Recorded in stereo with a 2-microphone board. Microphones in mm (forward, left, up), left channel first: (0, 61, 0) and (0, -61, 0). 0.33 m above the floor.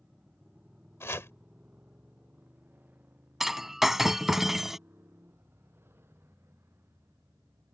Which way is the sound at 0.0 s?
10° right (ahead or behind).